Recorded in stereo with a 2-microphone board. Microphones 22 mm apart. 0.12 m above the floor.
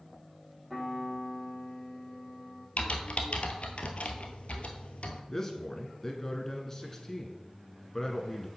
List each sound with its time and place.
0.7 s a piano: 5° right (ahead or behind), 4 m
2.8 s typing on a keyboard: 60° left (ahead or behind), 1.0 m
5.3 s a man speaking: 15° left (ahead or behind), 1.1 m